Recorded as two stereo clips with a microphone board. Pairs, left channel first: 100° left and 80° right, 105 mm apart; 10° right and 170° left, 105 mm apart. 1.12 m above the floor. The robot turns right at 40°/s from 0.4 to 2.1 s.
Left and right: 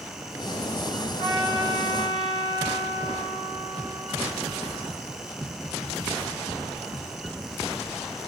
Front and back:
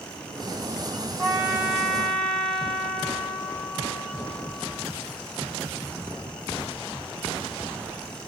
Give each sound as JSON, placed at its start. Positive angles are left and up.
{"t": 1.2, "sound": "a trumpet", "azimuth_deg": -125, "distance_m": 1.5}